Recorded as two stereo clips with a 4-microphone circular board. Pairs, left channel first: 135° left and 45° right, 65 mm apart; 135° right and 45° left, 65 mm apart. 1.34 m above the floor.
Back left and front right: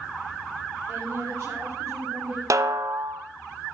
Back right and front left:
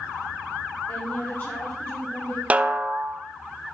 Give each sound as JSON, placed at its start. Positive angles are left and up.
{"t": 0.9, "sound": "a woman speaking", "azimuth_deg": -85, "distance_m": 4.5}
{"t": 2.5, "sound": "a snare drum", "azimuth_deg": -20, "distance_m": 0.7}